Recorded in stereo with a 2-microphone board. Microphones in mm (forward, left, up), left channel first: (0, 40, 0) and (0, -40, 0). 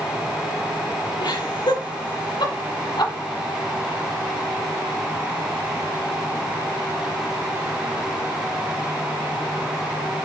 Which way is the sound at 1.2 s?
75° left (ahead or behind).